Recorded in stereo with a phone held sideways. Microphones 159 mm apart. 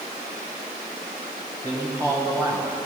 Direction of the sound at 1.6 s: 20° right (ahead or behind).